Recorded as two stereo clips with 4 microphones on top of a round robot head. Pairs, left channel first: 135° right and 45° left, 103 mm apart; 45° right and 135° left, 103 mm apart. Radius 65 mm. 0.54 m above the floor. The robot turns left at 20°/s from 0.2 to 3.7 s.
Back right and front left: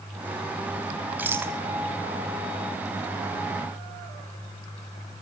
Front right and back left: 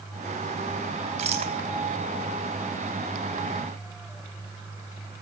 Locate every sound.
1.2 s a rattle: 115° left, 3.5 m; by 1.5 s 110° left, 3.5 m